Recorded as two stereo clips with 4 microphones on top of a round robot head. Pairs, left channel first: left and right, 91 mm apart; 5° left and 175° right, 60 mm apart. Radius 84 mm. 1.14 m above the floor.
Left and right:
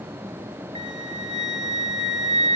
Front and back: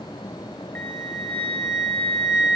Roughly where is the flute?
Right.